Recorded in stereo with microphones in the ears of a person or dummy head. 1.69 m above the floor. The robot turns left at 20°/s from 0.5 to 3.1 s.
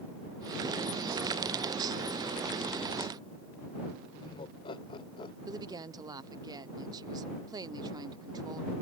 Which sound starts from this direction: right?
A woman speaking, at 5.5 s.